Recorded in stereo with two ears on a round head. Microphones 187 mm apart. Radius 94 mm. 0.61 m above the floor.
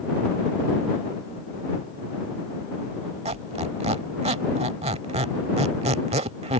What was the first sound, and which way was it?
A squeak, 30° right (ahead or behind).